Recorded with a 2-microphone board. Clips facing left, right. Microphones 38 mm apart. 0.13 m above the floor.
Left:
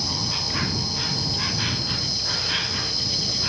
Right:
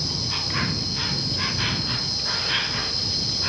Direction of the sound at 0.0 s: 10° right (ahead or behind).